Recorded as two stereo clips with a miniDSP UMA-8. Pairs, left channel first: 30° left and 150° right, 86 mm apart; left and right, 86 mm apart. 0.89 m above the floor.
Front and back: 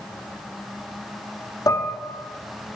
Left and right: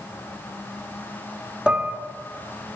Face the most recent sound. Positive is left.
turn(degrees=-15)